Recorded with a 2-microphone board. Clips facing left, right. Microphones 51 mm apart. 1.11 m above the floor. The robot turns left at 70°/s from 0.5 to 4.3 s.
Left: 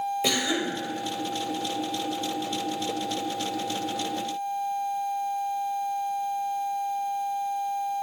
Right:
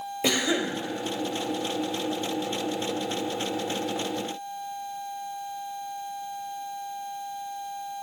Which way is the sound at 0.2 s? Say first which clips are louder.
Right 1 dB; 20° right (ahead or behind).